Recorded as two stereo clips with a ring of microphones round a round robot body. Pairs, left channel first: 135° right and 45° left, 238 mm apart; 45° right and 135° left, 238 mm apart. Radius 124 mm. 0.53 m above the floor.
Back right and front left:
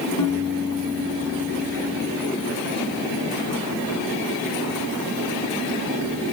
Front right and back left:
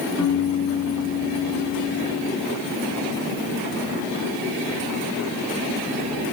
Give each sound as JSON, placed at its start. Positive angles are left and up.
{"t": 0.2, "sound": "a piano", "azimuth_deg": -60, "distance_m": 4.5}